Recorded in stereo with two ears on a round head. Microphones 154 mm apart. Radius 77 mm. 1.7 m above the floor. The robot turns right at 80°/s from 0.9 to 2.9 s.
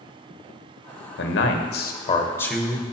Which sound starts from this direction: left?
A man speaking, at 1.2 s.